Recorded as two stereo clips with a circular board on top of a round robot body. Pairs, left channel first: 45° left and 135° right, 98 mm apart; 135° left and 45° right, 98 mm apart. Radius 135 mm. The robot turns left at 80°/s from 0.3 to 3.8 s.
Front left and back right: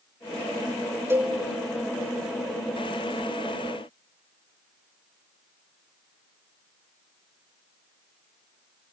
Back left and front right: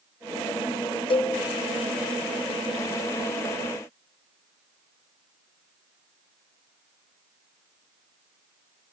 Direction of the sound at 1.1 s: 160° left.